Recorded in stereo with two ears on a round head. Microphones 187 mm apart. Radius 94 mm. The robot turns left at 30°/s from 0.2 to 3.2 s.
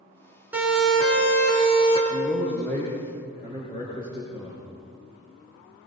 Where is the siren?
10° right (ahead or behind), 7 m; by 2.0 s 25° left (ahead or behind), 7 m.